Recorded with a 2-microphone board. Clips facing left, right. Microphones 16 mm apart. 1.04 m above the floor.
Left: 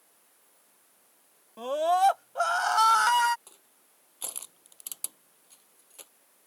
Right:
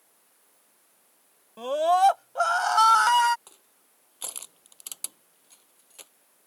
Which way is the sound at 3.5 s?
15° right (ahead or behind).